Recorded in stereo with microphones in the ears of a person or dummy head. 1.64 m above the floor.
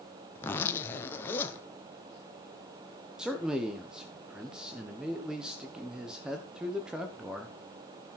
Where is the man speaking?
5° right (ahead or behind), 1.1 m.